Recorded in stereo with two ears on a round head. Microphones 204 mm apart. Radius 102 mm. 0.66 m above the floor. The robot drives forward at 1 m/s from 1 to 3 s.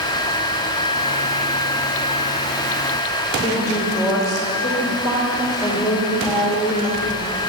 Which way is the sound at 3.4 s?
15° left (ahead or behind).